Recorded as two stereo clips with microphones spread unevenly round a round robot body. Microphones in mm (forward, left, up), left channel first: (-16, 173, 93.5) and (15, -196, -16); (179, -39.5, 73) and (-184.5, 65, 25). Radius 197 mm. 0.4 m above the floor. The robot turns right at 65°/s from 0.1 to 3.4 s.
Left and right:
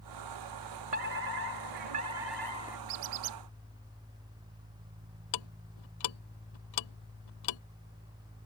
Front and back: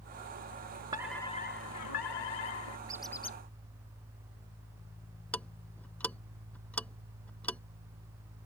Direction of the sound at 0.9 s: 120° right.